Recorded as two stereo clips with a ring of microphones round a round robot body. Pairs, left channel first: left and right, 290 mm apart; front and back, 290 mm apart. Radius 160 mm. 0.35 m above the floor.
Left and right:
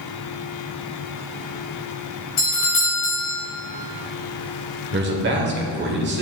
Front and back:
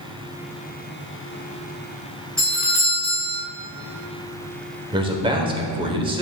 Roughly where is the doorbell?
Left.